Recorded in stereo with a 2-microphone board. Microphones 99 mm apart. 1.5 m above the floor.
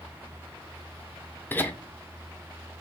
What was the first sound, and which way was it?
Laughter, 20° left (ahead or behind).